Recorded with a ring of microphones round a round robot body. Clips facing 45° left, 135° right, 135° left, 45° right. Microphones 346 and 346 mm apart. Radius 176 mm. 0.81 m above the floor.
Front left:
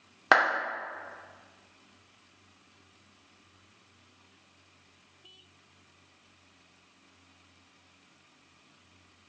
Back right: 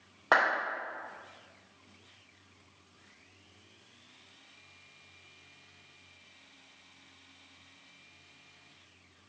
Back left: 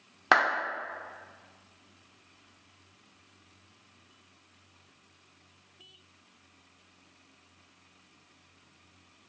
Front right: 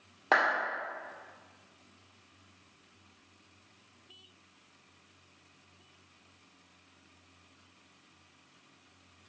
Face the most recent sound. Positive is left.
turn(degrees=85)